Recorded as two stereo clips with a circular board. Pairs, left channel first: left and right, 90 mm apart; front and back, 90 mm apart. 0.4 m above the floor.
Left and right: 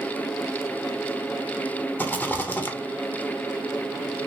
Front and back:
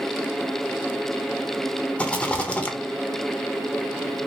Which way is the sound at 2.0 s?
55° left.